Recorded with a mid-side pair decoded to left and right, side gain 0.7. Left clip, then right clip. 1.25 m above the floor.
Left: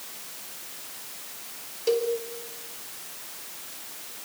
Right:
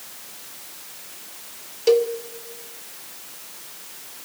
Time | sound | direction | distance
1.9 | a cowbell | 30° right | 1.8 m